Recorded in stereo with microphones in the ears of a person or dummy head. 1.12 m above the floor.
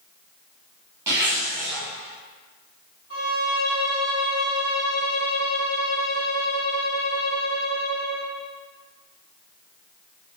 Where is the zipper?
15° right (ahead or behind), 1.3 m.